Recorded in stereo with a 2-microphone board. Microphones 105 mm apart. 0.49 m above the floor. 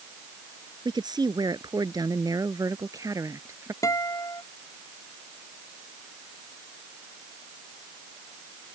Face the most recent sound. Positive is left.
turn(degrees=35)  # may be behind; listen again after turning